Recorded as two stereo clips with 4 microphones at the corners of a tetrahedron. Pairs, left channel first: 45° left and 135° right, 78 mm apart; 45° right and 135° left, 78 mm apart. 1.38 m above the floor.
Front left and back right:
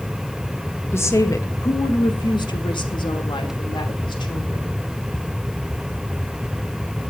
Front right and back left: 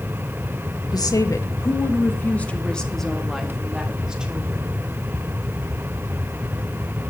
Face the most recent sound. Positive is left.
turn(degrees=60)